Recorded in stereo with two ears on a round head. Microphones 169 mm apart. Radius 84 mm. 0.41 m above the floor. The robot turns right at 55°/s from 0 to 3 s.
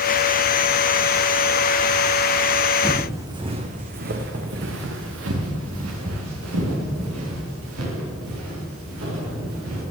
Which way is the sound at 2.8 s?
10° right (ahead or behind).